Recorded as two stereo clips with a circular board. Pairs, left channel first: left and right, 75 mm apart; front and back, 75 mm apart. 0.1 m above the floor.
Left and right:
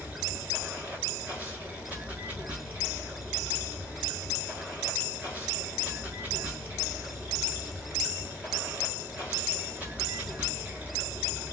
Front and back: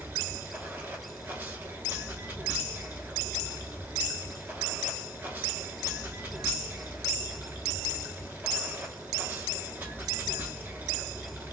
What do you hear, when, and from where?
0.0 s running water: 145° right, 1.2 m